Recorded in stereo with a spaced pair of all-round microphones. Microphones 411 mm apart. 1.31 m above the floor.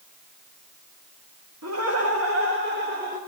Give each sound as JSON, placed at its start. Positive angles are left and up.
{"t": 1.6, "sound": "laughter", "side_deg": -40, "distance_m": 1.9}